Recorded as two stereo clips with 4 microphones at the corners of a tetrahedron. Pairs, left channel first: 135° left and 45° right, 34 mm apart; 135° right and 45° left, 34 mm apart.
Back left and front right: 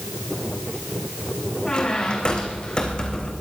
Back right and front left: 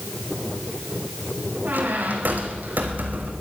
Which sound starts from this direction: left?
A squeak, at 1.6 s.